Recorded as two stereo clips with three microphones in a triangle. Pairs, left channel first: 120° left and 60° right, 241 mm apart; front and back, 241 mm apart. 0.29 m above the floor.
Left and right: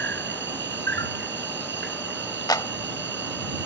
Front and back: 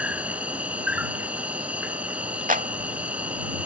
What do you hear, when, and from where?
0.0 s an insect: 95° right
2.5 s a clap: straight behind